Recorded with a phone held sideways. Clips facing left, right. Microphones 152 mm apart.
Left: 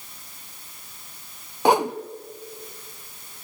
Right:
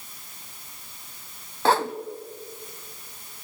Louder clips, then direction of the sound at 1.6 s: Left 3 dB; 15° left (ahead or behind).